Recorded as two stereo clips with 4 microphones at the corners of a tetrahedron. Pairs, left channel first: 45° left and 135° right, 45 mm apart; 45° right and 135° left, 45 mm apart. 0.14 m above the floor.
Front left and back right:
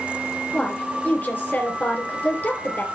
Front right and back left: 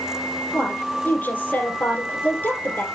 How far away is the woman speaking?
About 3.5 m.